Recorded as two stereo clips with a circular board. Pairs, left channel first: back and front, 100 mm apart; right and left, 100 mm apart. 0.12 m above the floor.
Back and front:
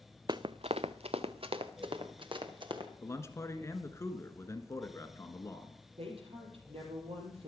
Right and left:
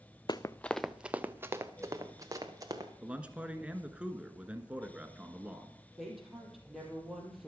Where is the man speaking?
155° left, 1.3 m.